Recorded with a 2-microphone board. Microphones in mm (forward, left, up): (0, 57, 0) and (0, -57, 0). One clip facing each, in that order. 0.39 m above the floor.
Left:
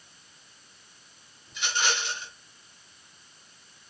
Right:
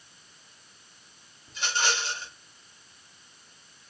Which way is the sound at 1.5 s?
40° right (ahead or behind).